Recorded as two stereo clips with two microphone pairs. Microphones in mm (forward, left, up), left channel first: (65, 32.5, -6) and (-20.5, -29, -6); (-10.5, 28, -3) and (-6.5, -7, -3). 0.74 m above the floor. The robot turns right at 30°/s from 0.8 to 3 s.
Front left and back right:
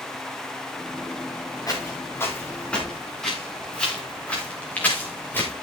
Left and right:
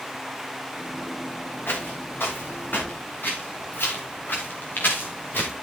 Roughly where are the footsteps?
Left.